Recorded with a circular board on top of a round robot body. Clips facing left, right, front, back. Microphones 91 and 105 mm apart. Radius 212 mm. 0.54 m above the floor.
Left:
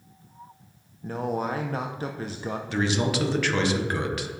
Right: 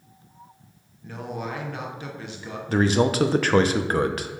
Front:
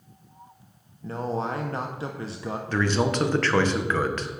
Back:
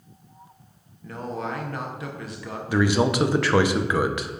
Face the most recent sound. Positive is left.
turn(degrees=-105)